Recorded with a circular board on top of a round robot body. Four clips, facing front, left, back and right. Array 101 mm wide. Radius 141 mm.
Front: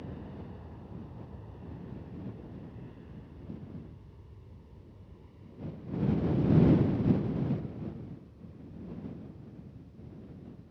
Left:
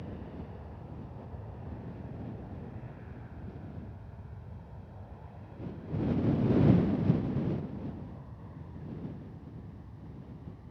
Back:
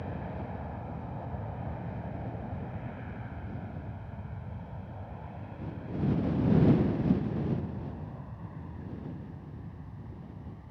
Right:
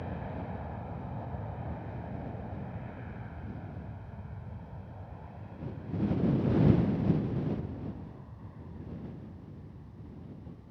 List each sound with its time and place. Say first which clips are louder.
0.0 s an aircraft: right 4 dB, back 5 dB; 135° right; by 10.7 s 170° left